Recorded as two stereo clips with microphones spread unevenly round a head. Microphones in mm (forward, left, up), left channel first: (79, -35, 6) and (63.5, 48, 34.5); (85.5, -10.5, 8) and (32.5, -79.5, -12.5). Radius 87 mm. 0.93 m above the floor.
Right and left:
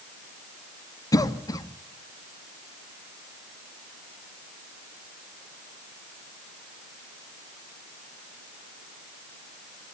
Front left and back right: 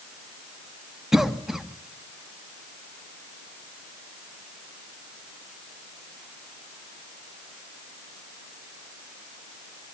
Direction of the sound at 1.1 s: 45° right.